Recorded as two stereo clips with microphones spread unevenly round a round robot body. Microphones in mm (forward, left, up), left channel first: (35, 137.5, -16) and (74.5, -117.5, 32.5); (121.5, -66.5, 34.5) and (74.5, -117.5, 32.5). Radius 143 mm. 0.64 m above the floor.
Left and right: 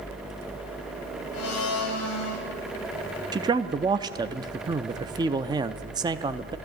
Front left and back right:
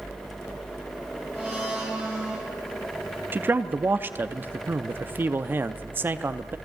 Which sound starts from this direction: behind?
A man speaking, at 3.3 s.